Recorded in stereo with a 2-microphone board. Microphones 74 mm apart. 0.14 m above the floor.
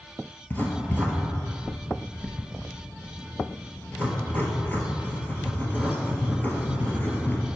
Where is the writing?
25° left (ahead or behind), 1.0 m.